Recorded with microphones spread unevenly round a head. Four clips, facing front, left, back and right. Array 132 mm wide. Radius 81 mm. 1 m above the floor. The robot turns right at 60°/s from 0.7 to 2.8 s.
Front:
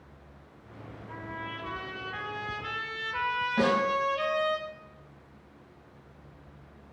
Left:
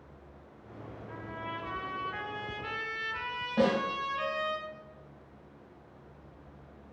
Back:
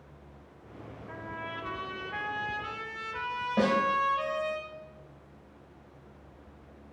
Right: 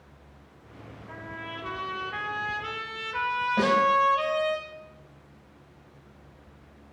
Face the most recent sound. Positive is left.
turn(degrees=180)